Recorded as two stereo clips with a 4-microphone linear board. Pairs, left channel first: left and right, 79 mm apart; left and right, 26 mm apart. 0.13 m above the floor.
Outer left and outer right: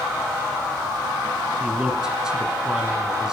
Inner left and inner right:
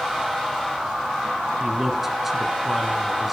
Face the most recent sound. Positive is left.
turn(degrees=-10)  # may be behind; listen again after turning